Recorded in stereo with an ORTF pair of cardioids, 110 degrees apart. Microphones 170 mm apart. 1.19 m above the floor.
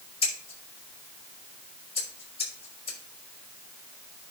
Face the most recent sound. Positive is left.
turn(degrees=35)